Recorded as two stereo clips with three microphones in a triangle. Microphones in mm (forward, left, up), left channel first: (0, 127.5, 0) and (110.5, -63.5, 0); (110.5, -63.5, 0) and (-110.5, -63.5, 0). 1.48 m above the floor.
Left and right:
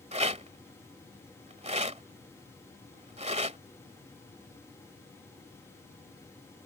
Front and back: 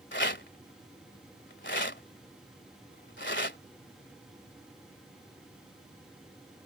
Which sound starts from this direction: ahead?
A rattle, at 0.1 s.